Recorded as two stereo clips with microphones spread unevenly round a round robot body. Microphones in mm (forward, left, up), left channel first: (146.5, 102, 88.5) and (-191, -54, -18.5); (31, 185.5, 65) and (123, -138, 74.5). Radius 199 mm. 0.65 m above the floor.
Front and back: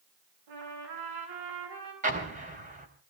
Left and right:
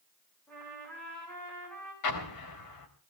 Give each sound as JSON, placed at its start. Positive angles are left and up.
{"t": 0.5, "sound": "a trumpet", "azimuth_deg": -170, "distance_m": 9.0}
{"t": 2.0, "sound": "an explosion", "azimuth_deg": 140, "distance_m": 4.0}